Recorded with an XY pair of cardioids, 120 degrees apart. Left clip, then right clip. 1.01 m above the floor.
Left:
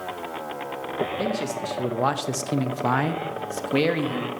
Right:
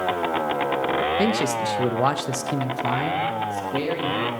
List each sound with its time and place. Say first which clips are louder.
1.2 s a man speaking: right 5 dB; 50° right, 0.8 m; by 4.3 s 55° left, 1.4 m